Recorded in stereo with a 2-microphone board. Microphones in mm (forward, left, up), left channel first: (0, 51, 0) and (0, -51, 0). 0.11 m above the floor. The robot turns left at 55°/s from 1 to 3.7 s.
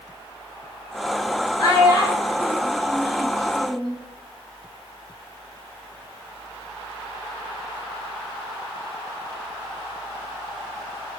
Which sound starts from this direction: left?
A child speaking, at 1.6 s.